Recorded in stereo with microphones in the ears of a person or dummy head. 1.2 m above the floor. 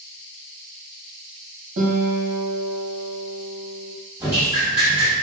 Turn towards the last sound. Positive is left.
turn(degrees=-15)  # may be behind; listen again after turning